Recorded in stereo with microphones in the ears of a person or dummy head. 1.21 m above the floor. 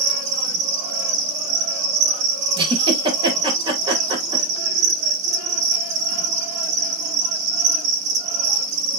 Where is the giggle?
30° right (ahead or behind), 2.5 m.